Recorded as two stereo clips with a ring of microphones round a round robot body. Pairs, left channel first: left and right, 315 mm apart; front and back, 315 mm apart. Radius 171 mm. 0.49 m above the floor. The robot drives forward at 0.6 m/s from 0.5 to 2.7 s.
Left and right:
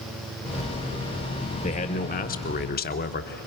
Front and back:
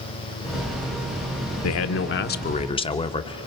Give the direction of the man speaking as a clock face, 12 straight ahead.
11 o'clock.